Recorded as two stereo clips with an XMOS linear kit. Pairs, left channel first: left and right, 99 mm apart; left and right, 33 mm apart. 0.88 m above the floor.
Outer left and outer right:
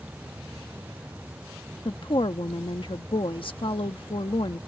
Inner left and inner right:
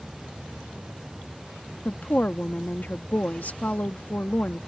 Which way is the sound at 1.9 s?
60° left (ahead or behind).